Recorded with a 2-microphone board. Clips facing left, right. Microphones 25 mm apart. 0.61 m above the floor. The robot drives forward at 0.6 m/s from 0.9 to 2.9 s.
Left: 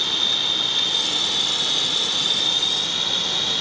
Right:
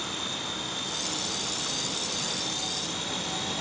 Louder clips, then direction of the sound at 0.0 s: Left 12 dB; 60° left (ahead or behind).